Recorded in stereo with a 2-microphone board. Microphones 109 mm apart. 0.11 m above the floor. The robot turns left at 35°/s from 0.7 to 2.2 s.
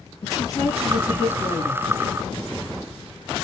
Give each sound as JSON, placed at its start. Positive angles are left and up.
{"t": 0.2, "sound": "a woman speaking", "azimuth_deg": 145, "distance_m": 2.5}